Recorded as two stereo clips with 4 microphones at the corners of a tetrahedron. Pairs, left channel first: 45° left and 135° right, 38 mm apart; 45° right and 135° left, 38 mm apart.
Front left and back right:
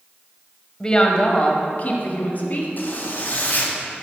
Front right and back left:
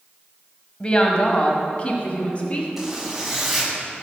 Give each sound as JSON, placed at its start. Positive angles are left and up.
{"t": 0.8, "sound": "a woman speaking", "azimuth_deg": -5, "distance_m": 1.2}
{"t": 2.8, "sound": "a zipper", "azimuth_deg": 55, "distance_m": 2.0}